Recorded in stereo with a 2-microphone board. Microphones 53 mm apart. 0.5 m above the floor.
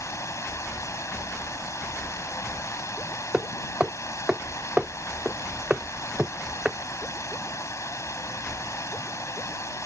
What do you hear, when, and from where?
0.0 s running water: 70° left (ahead or behind)
3.3 s hammering: 20° right (ahead or behind)